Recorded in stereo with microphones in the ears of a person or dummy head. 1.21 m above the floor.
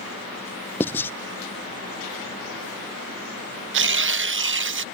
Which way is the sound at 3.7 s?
65° right (ahead or behind).